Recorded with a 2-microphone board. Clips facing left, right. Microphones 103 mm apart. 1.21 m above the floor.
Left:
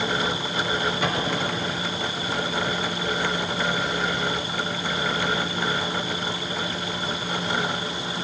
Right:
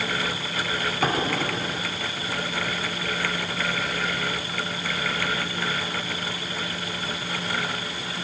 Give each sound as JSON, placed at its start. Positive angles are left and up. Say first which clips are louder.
{"t": 1.0, "sound": "an explosion", "louder": "right 1 dB", "side_deg": -40, "distance_m": 4.0}